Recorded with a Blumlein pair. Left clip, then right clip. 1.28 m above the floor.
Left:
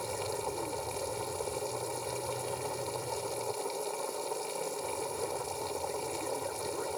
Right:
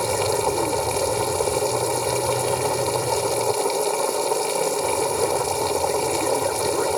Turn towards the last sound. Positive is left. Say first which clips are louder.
# right 14 dB
turn(degrees=-55)